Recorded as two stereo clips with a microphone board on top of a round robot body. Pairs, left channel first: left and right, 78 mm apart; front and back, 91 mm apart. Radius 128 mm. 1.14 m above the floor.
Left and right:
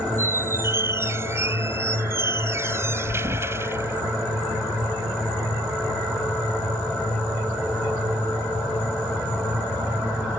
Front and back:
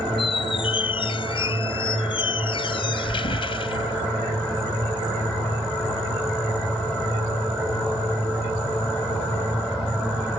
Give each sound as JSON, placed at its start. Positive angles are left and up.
{"t": 0.2, "sound": "a squeak", "azimuth_deg": -35}